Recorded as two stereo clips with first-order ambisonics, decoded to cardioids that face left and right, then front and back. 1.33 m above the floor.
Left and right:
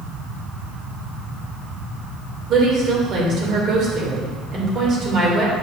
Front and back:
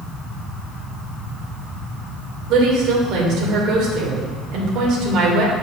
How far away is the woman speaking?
About 2.5 m.